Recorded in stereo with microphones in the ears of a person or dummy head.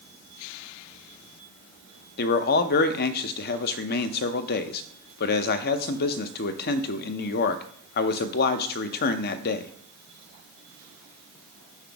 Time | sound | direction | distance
2.2 | a man speaking | 50° left (ahead or behind) | 0.6 m